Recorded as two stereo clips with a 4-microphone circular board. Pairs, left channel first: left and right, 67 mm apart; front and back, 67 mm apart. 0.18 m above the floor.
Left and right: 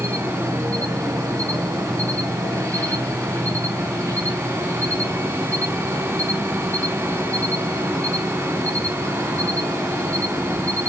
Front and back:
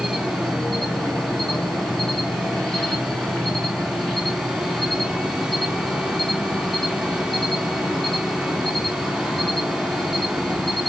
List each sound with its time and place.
0.0 s an insect: 85° right, 1.5 m